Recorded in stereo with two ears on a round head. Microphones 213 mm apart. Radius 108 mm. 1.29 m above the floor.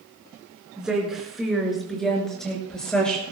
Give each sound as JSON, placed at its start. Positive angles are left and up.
{"t": 0.8, "sound": "a woman speaking", "side_deg": -5, "distance_m": 5.0}